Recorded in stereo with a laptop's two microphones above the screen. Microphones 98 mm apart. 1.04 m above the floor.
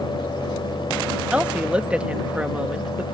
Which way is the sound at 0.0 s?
55° left (ahead or behind).